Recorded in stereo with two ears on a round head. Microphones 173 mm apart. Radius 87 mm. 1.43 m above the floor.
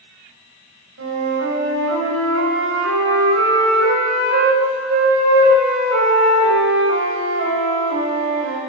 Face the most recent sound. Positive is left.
turn(degrees=-75)  # may be behind; listen again after turning